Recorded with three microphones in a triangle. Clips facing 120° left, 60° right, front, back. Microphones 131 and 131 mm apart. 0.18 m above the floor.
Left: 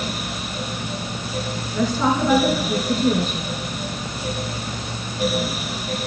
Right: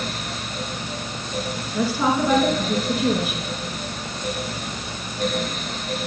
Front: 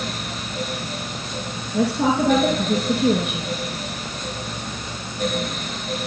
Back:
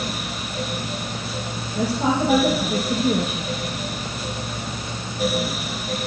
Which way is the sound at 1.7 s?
20° left.